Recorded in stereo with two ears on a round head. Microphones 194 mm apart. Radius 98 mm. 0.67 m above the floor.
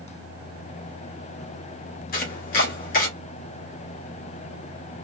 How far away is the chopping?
About 1.5 m.